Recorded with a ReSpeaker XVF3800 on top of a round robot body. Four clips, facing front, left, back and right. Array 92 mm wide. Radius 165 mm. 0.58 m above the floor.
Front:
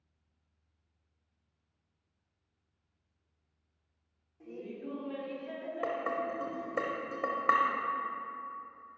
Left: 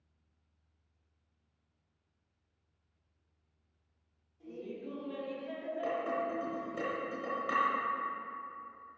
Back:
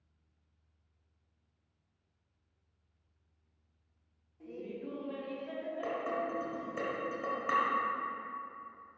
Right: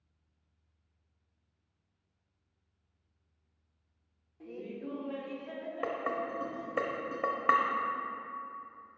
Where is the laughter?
80° right, 1.4 m; by 6.8 s 90° left, 1.3 m.